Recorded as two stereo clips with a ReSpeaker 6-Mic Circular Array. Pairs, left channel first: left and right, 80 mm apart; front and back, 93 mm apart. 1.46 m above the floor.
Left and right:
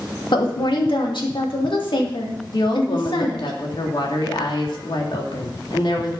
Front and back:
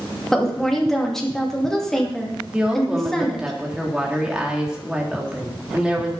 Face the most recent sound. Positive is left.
turn(degrees=100)